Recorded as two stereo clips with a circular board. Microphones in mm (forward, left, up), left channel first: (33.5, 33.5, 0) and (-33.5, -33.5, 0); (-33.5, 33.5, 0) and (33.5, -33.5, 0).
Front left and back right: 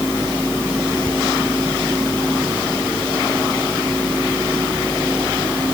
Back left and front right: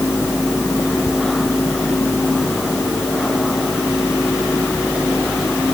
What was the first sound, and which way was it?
Only background noise.